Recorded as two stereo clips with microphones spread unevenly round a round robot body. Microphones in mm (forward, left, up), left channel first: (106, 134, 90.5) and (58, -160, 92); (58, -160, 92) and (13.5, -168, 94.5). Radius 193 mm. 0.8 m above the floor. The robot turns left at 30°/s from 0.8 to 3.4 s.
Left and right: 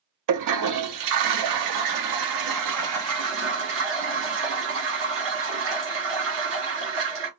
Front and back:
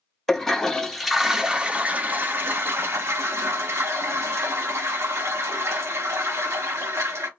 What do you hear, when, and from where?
0.3 s a toilet flushing: 75° right, 0.8 m; by 7.3 s 150° right, 0.8 m